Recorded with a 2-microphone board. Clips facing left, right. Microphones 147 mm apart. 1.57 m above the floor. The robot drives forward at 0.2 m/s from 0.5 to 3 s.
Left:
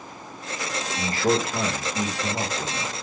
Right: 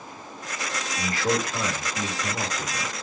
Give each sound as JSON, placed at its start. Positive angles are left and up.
{"t": 1.0, "sound": "a man speaking", "side_deg": 30, "distance_m": 1.0}